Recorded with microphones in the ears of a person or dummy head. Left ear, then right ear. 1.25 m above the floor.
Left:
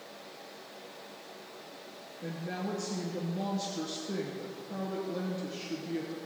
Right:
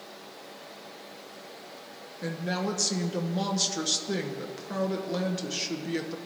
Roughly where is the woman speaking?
Right.